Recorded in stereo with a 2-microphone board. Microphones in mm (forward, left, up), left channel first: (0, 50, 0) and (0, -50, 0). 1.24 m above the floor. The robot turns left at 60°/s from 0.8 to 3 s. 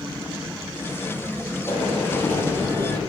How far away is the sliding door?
About 6 m.